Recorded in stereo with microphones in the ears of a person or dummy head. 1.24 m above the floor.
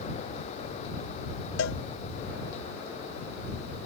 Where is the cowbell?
70° left (ahead or behind).